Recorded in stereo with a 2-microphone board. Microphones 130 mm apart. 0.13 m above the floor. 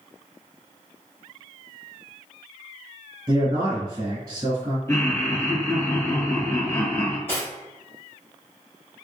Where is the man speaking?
25° right (ahead or behind), 1.8 m.